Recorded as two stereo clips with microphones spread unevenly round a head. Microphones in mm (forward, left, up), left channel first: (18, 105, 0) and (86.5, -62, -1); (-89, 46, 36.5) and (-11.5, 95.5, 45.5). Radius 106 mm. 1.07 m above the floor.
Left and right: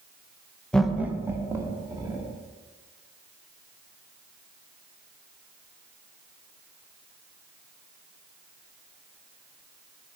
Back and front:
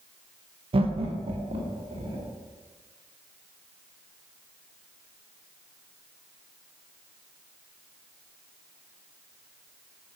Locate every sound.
0.7 s laughter: 25° left, 0.7 m; by 2.3 s straight ahead, 3 m